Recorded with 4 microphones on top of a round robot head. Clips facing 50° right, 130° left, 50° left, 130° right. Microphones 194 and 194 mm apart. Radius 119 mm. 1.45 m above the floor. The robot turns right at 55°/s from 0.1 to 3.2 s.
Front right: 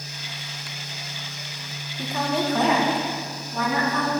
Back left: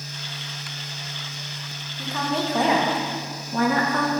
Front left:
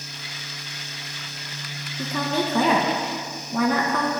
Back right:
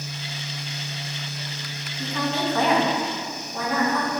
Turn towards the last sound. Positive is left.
turn(degrees=85)